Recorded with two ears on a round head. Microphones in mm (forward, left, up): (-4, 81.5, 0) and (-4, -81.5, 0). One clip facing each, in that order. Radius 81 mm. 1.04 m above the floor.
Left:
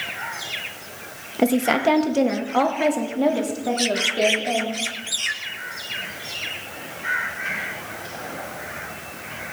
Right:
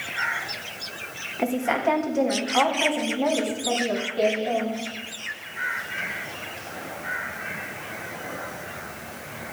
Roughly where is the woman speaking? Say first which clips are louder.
Left 5 dB; left.